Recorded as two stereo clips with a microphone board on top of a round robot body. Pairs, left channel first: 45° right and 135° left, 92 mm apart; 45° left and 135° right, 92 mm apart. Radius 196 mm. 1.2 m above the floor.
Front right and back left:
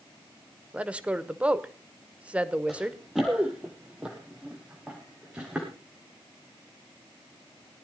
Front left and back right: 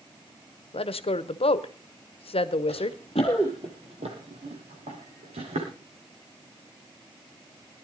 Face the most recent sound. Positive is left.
turn(degrees=-145)